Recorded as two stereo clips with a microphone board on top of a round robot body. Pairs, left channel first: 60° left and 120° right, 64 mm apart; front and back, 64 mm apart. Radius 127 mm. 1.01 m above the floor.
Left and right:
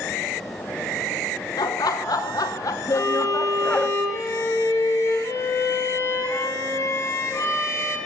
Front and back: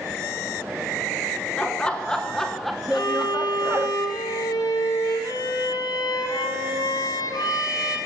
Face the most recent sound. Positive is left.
turn(degrees=15)